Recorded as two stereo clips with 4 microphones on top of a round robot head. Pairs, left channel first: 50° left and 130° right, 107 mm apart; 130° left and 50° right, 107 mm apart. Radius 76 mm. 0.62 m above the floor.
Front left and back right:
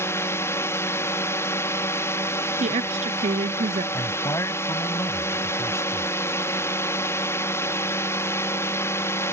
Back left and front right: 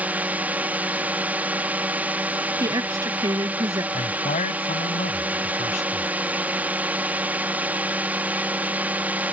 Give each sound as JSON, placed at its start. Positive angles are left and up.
{"t": 0.0, "sound": "a drone", "azimuth_deg": 10}
{"t": 2.6, "sound": "a woman speaking", "azimuth_deg": -110}
{"t": 3.9, "sound": "a man speaking", "azimuth_deg": 115}